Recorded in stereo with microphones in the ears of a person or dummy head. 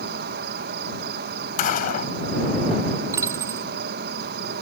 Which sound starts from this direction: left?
A gunshot, at 1.6 s.